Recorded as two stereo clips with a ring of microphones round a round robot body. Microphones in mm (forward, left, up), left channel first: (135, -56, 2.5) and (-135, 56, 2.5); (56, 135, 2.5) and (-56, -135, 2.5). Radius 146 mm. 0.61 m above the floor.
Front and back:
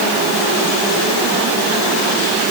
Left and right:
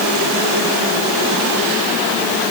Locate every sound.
Only background noise.